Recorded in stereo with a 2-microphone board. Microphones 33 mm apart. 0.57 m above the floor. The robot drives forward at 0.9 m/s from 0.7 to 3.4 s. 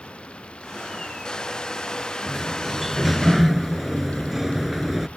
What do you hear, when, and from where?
0.0 s running water: 30° left (ahead or behind); by 5.2 s 35° left (ahead or behind)
2.3 s a sliding door: 5° right (ahead or behind); by 5.1 s 10° right (ahead or behind)